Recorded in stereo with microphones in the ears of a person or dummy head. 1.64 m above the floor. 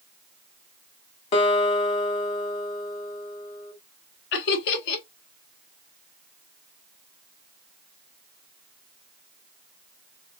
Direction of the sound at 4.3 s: 60° left (ahead or behind).